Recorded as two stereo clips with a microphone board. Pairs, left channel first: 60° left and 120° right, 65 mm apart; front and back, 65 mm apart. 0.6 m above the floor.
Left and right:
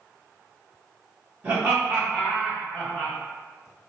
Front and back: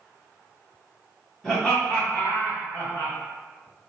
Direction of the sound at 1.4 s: 70° right.